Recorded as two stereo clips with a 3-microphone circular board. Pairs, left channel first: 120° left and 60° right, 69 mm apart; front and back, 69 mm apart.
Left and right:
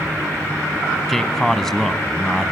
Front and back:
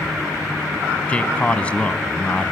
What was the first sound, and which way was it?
A man speaking, 40° left.